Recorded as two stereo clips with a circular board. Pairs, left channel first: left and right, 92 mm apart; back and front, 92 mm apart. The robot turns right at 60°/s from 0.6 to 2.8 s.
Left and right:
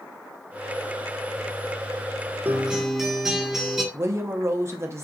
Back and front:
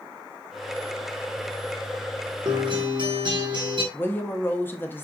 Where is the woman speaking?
125° right, 0.6 m.